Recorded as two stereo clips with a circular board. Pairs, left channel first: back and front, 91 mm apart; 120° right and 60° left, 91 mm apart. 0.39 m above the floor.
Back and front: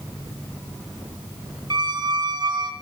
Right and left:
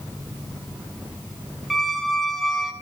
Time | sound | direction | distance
1.7 | a squeak | 30° right | 0.8 m